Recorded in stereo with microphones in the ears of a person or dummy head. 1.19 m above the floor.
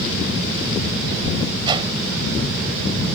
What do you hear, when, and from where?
1.6 s a whoosh: 25° right (ahead or behind)